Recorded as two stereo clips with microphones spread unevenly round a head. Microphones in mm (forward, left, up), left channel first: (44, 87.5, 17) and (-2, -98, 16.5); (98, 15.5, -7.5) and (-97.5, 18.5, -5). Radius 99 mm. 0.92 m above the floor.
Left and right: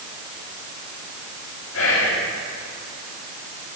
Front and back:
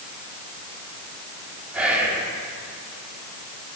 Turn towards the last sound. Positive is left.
turn(degrees=95)